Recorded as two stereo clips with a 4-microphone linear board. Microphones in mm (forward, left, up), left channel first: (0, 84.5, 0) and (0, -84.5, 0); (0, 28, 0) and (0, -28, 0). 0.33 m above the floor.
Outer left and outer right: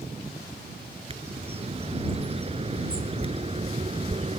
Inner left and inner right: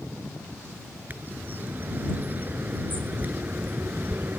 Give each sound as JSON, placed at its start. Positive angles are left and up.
{"t": 1.1, "sound": "a bird", "side_deg": -35}